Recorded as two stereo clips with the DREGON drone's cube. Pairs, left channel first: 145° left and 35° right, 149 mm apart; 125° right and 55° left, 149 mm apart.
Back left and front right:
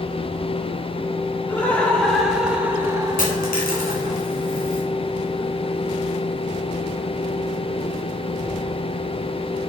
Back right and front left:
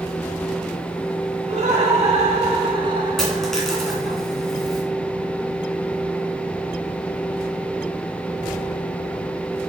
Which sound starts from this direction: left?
Laughter, at 1.5 s.